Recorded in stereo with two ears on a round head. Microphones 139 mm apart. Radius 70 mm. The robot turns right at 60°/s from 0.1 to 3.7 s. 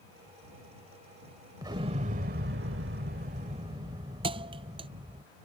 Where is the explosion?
155° right; by 5.2 s 30° right.